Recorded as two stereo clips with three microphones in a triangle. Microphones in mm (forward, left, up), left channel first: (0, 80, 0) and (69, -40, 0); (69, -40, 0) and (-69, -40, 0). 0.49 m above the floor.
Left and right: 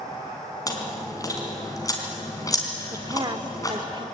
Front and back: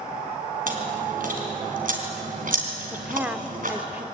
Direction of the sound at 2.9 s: 105° right.